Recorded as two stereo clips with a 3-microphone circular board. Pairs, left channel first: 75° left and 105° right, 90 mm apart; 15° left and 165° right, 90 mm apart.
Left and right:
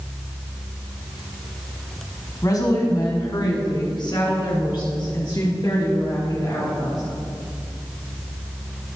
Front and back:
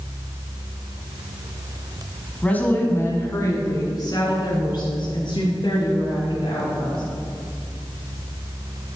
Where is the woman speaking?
80° left, 1.8 m; by 7.0 s 35° left, 5 m.